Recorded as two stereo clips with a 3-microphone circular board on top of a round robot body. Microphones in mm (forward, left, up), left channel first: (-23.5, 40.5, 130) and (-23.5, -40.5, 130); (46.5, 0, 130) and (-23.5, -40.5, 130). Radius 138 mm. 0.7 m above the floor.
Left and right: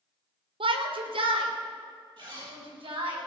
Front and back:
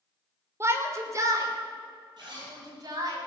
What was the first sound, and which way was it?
A shout, 90° right.